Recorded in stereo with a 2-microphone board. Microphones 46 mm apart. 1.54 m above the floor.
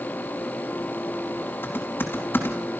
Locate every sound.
1.6 s typing on a keyboard: 50° left (ahead or behind), 3.5 m